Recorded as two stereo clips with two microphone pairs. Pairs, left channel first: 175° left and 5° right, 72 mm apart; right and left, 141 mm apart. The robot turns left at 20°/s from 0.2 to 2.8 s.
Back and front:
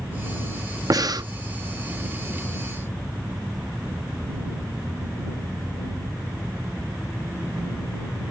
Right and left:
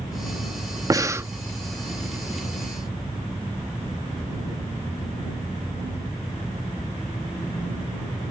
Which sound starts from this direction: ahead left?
Breathing, at 0.9 s.